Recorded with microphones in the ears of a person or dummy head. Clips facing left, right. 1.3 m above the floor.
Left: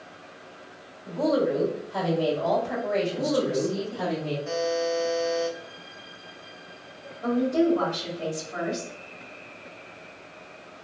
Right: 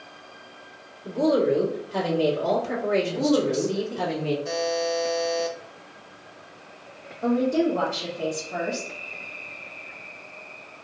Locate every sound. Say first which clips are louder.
1.1 s a woman speaking: right 3 dB; 70° right (ahead or behind), 1.6 m
3.0 s a woman speaking: right 3 dB; 70° right (ahead or behind), 0.9 m
4.5 s a buzzer: even; 45° right (ahead or behind), 0.6 m
7.2 s a woman speaking: right 1 dB; 75° right (ahead or behind), 1.3 m